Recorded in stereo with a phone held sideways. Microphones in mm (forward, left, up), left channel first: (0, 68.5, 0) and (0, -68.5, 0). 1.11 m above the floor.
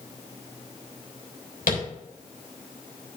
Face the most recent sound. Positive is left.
turn(degrees=80)